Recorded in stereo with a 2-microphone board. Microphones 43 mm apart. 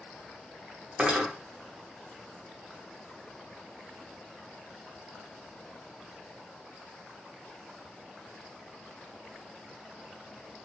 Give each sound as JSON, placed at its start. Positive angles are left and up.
{"t": 1.0, "sound": "cutlery clinking", "side_deg": -25, "distance_m": 0.9}